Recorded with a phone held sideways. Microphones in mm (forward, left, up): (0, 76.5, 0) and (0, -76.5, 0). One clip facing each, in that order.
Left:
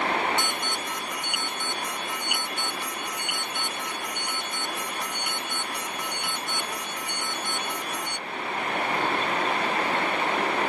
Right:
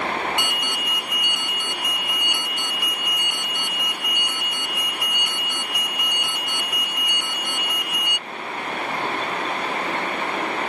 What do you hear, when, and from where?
0.4 s an alarm: 10° right (ahead or behind)